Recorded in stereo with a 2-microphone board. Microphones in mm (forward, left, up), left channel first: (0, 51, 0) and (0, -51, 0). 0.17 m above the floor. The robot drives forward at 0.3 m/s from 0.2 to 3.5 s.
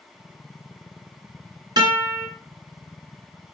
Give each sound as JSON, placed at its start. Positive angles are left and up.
{"t": 1.8, "sound": "a guitar", "side_deg": -45, "distance_m": 2.5}